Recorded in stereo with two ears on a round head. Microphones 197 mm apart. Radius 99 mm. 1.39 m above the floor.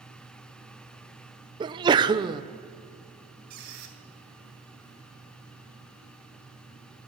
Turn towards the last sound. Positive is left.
turn(degrees=-45)  # may be behind; listen again after turning